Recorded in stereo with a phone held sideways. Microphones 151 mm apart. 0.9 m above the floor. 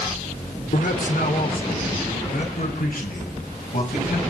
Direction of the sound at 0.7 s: 70° left (ahead or behind).